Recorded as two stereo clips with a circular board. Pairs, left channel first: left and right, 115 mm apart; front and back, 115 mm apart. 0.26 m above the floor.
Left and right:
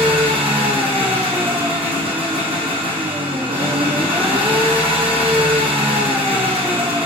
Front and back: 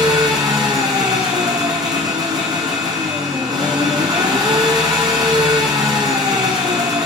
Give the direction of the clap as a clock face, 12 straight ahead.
No clap in this recording.